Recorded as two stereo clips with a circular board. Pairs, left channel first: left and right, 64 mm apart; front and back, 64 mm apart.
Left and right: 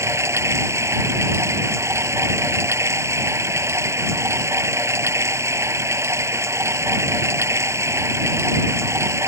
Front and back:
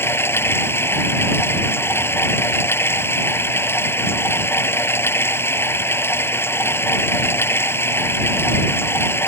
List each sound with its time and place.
0.0 s running water: 50° right